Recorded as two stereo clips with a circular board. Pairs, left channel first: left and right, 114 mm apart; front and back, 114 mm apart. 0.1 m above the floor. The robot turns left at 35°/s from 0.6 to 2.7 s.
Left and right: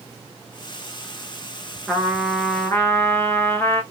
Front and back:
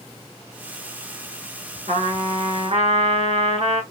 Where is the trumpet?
175° right, 2 m; by 3.8 s 160° left, 2 m.